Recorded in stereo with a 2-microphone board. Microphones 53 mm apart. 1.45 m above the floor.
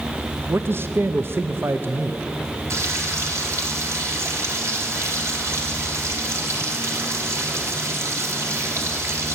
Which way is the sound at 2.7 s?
60° right (ahead or behind).